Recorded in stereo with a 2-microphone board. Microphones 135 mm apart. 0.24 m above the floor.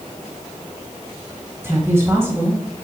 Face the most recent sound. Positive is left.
turn(degrees=-20)  # may be behind; listen again after turning